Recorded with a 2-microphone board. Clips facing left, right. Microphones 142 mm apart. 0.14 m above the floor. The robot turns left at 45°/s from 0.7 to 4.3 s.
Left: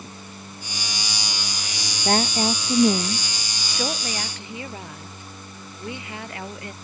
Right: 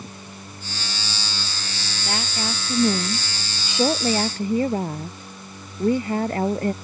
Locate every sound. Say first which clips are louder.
2.0 s a woman speaking: left 8 dB; 50° left; by 6.7 s 50° right